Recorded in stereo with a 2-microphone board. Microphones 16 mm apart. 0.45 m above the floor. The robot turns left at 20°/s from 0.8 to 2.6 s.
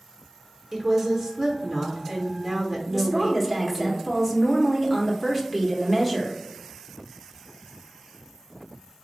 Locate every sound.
0.7 s a woman speaking: 25° right (ahead or behind), 0.8 m; by 3.9 s 15° right (ahead or behind), 0.8 m
2.9 s a woman speaking: centre (ahead or behind), 0.8 m